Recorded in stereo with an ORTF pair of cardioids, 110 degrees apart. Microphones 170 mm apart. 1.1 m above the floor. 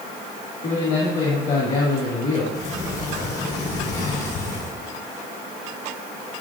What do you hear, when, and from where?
0.6 s a man speaking: 55° left, 2.5 m
2.5 s a sliding door: 70° left, 3 m